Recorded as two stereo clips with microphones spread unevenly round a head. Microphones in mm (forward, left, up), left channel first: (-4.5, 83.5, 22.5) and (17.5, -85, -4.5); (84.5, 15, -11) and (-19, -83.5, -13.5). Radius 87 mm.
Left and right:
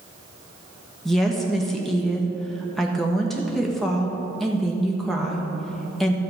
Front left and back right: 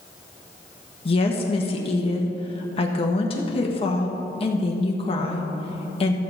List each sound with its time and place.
1.1 s a woman speaking: 5° left, 1.2 m